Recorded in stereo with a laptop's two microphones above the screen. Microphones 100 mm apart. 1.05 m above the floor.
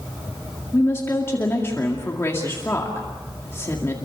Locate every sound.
0.7 s a woman speaking: 25° left (ahead or behind), 2 m